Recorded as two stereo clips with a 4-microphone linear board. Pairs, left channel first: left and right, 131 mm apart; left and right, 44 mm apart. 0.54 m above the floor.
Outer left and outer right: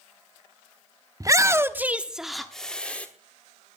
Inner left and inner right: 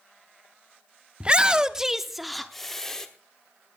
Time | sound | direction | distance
1.2 | a shout | 25° right (ahead or behind) | 0.8 m